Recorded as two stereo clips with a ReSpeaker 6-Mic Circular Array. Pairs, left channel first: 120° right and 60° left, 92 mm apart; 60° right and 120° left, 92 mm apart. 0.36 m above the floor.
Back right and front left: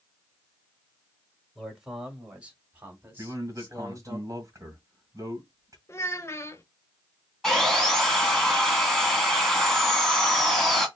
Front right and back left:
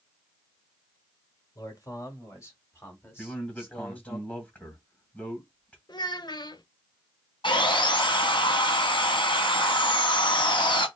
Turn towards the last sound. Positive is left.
turn(degrees=-30)